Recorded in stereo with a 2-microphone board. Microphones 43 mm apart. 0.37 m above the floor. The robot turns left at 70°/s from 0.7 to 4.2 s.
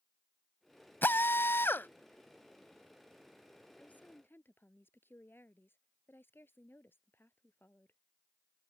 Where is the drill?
120° left; by 1.9 s 60° left.